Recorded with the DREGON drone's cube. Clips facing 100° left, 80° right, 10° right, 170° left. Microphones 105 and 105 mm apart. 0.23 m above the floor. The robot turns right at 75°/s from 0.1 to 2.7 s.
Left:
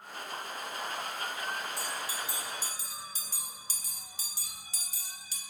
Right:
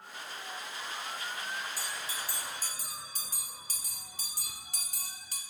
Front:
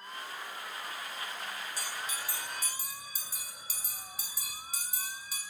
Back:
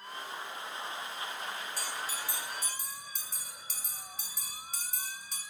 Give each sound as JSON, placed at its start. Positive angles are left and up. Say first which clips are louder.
{"t": 1.8, "sound": "a bell", "louder": "left 3 dB, back 1 dB", "azimuth_deg": -165, "distance_m": 1.6}